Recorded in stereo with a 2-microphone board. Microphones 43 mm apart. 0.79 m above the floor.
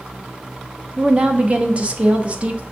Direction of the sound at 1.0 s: 30° right (ahead or behind).